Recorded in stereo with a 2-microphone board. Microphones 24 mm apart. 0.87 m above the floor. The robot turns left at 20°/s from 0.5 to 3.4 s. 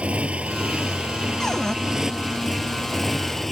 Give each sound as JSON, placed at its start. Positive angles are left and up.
{"t": 0.0, "sound": "a motorcycle", "azimuth_deg": -135}
{"t": 1.4, "sound": "a cupboard door", "side_deg": 20}